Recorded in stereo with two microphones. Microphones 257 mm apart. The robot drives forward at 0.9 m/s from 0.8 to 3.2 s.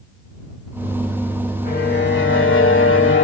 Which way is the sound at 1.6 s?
35° left (ahead or behind).